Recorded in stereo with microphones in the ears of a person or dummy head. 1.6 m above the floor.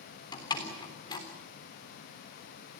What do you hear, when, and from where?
0.3 s a door slam: 25° left (ahead or behind), 3.5 m